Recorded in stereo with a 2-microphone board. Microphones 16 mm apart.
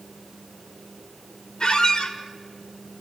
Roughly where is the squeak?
Left.